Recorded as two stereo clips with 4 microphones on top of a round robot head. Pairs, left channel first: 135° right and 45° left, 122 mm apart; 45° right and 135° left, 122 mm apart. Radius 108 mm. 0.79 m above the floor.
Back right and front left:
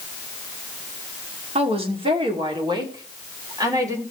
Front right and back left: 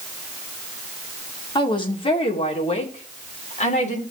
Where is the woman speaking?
5° left, 2.5 m; by 4.0 s 20° right, 3.5 m.